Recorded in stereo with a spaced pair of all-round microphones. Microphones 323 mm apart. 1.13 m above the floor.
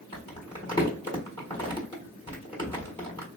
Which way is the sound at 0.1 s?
15° left (ahead or behind).